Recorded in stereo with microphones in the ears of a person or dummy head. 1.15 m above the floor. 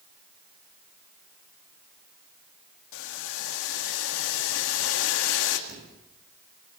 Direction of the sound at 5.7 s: 55° right (ahead or behind).